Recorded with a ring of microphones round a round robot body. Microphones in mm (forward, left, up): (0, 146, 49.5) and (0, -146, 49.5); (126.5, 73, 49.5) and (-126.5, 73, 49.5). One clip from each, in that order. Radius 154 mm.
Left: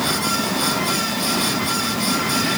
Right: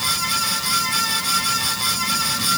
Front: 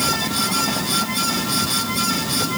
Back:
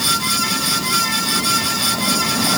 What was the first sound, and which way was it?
Only background noise.